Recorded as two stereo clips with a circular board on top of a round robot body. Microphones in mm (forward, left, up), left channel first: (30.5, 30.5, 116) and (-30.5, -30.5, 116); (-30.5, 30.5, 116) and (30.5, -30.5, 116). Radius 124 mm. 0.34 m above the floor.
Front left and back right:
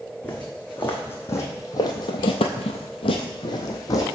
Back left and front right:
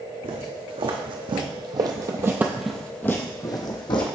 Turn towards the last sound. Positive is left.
turn(degrees=100)